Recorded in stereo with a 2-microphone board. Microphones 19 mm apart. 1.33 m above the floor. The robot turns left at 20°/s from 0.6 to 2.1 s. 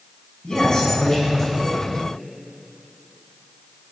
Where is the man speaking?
35° left (ahead or behind), 6.5 m; by 1.8 s 10° left (ahead or behind), 6.5 m.